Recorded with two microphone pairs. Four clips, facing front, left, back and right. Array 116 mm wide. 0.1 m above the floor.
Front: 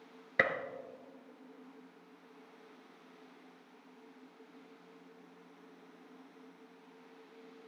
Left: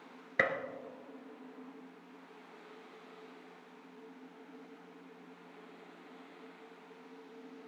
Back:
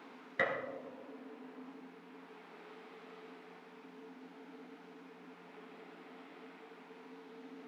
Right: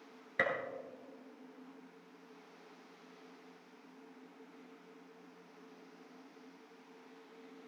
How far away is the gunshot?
About 1.4 m.